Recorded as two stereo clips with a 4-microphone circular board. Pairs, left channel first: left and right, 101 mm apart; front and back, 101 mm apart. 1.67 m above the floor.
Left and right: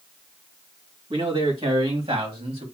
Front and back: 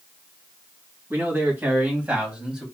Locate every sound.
1.1 s a man speaking: 115° right, 2.5 m; by 2.6 s 100° right, 2.0 m